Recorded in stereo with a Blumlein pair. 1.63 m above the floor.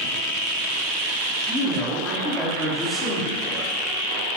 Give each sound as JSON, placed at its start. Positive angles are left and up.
{"t": 1.5, "sound": "a man speaking", "azimuth_deg": 5, "distance_m": 5.0}